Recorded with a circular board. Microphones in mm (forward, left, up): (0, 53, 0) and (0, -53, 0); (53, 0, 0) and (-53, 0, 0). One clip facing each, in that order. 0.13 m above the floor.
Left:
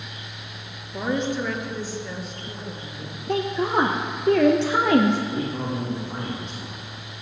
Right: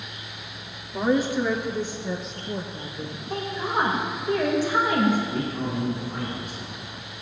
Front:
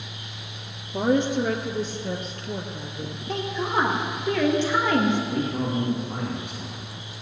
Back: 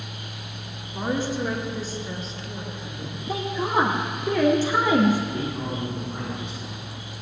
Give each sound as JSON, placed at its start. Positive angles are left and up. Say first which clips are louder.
{"t": 0.9, "sound": "a woman speaking", "louder": "right 3 dB, front 5 dB", "azimuth_deg": 0, "distance_m": 2.0}
{"t": 3.3, "sound": "a woman speaking", "louder": "left 6 dB, back 2 dB", "azimuth_deg": 100, "distance_m": 2.5}
{"t": 5.3, "sound": "a man speaking", "louder": "left 1 dB, front 3 dB", "azimuth_deg": 25, "distance_m": 5.5}